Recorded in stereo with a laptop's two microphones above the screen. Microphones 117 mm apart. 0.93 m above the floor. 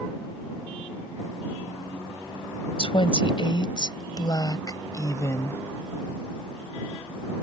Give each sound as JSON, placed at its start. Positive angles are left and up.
{"t": 2.8, "sound": "a woman speaking", "side_deg": 50}